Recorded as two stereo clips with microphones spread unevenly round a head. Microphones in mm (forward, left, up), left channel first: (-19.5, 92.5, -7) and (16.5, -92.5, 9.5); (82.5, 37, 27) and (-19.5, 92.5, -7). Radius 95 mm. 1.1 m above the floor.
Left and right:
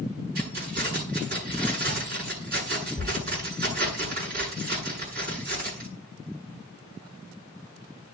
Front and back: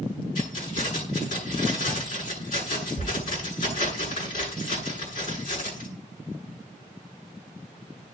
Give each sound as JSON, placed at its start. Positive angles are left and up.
{"t": 0.3, "sound": "keys jangling", "azimuth_deg": -35, "distance_m": 9.0}